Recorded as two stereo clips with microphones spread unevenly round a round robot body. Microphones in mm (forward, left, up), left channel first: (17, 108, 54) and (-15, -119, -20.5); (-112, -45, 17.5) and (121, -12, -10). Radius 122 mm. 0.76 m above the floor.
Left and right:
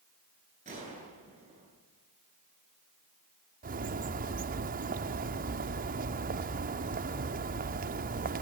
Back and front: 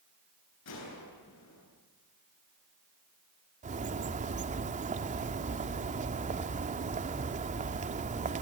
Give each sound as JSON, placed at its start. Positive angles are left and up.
{"t": 0.7, "sound": "a gunshot", "azimuth_deg": -160, "distance_m": 9.5}
{"t": 3.6, "sound": "a bird", "azimuth_deg": -50, "distance_m": 1.1}